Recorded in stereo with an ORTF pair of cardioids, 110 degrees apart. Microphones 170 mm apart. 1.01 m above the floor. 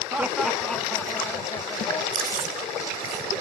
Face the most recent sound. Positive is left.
turn(degrees=-60)